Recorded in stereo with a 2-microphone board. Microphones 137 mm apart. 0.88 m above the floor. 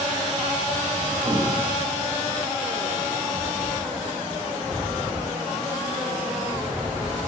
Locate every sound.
1.2 s breathing: 50° right (ahead or behind), 2.0 m